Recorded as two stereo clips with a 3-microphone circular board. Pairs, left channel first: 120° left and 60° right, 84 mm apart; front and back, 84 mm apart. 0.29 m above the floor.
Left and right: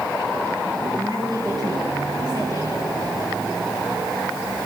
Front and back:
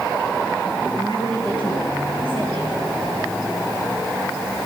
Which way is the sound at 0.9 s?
25° right.